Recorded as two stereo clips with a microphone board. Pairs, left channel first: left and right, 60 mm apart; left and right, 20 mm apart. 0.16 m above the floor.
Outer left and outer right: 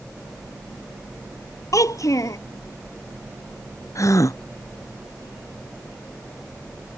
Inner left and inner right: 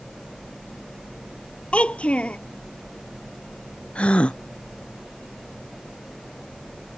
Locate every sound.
1.7 s a child speaking: 70° left (ahead or behind)
4.0 s a gasp: 65° left (ahead or behind)